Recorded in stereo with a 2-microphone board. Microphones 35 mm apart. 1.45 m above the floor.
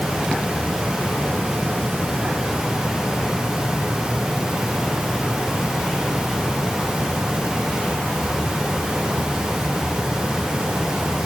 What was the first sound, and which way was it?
Only background noise.